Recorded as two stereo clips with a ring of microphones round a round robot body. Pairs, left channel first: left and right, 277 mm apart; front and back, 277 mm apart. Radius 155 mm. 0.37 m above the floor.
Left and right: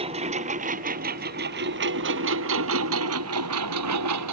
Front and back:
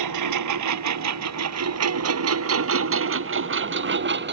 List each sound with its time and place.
0.0 s a lawn mower: 165° right; by 4.3 s 130° right